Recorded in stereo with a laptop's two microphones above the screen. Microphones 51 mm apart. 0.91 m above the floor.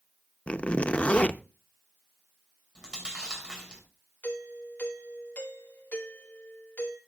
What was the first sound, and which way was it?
A zipper, 25° left (ahead or behind).